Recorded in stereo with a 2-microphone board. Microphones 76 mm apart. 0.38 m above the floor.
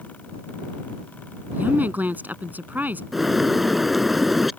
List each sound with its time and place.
1.5 s a woman speaking: 25° right (ahead or behind)
3.1 s a bird: 5° right (ahead or behind)